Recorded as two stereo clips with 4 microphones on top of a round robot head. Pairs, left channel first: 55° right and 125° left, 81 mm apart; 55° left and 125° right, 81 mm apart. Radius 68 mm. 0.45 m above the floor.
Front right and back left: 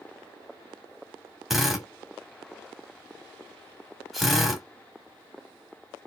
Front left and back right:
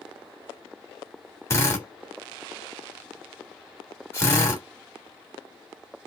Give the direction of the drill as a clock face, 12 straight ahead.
11 o'clock.